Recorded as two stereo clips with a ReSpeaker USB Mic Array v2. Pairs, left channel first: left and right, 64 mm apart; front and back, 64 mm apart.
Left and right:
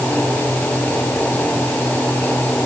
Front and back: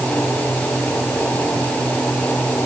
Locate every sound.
Only background noise.